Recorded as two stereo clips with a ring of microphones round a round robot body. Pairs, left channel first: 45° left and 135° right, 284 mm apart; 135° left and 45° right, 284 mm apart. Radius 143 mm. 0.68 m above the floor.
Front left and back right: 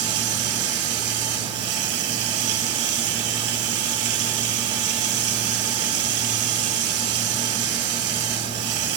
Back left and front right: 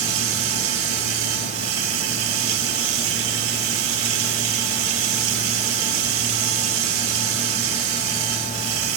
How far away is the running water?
About 2 m.